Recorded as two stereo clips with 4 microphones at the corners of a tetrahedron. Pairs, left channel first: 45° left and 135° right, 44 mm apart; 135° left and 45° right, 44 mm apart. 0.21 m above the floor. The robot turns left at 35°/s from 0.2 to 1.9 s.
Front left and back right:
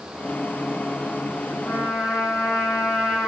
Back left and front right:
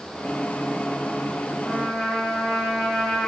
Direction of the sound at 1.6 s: 55° left.